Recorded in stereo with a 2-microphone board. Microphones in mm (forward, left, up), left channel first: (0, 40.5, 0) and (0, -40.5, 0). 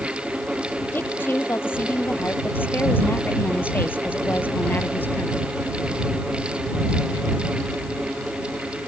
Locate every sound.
0.9 s a woman speaking: 30° left (ahead or behind); by 5.5 s 25° left (ahead or behind)